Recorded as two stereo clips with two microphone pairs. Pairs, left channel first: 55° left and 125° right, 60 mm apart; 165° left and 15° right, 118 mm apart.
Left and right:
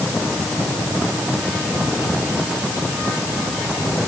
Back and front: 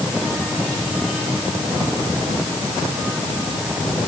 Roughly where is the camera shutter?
I don't hear a camera shutter.